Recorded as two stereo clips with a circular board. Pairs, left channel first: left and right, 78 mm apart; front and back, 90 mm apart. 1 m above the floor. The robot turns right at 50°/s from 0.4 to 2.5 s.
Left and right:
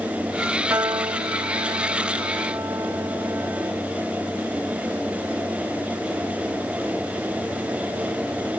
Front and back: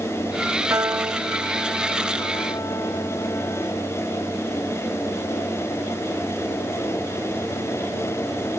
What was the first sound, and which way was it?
A piano, 135° right.